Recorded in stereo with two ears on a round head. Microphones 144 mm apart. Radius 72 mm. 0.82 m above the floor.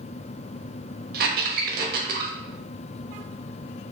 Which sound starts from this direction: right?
A squeak, at 1.1 s.